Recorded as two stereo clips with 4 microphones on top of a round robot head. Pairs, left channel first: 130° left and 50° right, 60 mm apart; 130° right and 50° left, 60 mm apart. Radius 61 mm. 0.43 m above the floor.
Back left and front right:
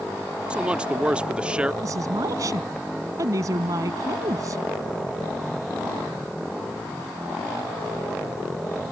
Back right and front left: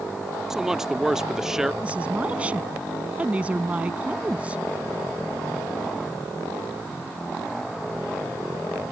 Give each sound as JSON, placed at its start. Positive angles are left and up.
{"t": 0.5, "sound": "a man speaking", "azimuth_deg": -15}
{"t": 1.8, "sound": "a woman speaking", "azimuth_deg": -20}